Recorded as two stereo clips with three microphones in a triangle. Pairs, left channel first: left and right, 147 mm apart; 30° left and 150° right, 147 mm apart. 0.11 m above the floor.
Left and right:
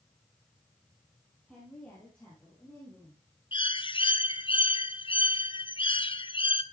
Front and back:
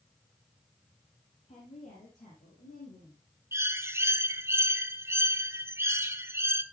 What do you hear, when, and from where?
1.5 s a woman speaking: 5° left, 3.5 m; by 3.2 s 20° left, 4 m
3.5 s a bird: 140° left, 0.6 m